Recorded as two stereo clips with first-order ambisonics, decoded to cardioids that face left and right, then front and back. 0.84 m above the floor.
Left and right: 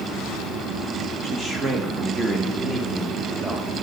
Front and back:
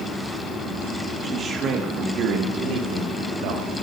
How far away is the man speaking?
About 0.9 m.